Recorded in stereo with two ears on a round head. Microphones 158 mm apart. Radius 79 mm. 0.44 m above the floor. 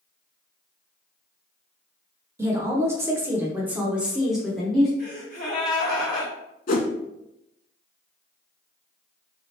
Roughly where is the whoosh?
Left.